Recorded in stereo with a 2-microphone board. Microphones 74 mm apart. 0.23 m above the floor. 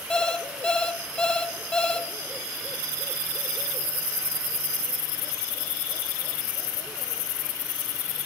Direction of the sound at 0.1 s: 10° left (ahead or behind).